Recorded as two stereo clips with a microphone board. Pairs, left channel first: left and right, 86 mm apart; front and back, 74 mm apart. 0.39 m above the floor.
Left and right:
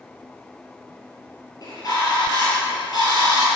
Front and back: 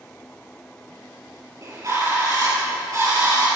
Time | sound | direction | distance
1.6 | a bird | 135° left | 6 m